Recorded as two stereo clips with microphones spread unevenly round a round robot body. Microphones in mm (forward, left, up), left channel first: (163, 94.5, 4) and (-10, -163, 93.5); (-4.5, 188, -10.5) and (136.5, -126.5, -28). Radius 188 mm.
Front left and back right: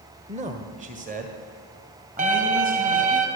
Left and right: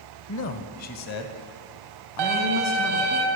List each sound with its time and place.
0.3 s a man speaking: 155° left, 1.3 m; by 3.2 s 165° left, 3 m
2.2 s a violin: 60° right, 3.5 m